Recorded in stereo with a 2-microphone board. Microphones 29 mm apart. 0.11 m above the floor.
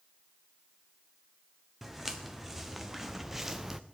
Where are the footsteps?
5° right (ahead or behind), 1.8 m; by 3.8 s 10° right (ahead or behind), 0.7 m.